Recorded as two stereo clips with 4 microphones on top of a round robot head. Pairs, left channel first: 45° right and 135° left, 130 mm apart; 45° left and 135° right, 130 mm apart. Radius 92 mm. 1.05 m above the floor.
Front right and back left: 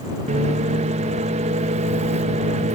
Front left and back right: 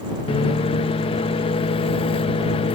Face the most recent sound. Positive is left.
turn(degrees=95)